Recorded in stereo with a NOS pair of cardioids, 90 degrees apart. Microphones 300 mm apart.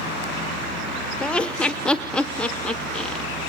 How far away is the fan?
About 4.5 m.